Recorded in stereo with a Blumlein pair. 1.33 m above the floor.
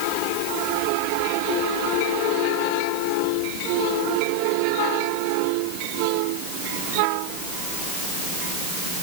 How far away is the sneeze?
No sneeze in this recording.